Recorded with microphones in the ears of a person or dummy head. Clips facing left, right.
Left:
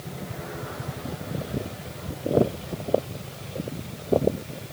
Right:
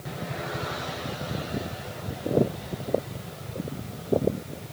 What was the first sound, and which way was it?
Only background noise.